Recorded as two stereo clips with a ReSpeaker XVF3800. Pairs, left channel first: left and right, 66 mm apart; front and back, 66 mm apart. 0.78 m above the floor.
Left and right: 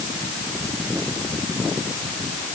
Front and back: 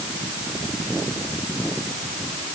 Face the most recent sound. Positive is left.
No sound to turn to.